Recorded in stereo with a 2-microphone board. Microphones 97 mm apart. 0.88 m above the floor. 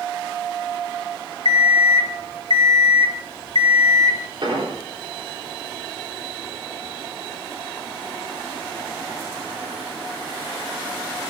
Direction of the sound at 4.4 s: 60° right (ahead or behind).